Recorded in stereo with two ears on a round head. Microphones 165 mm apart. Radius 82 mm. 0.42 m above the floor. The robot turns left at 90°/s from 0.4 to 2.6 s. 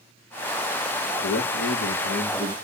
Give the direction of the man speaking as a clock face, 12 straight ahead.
8 o'clock.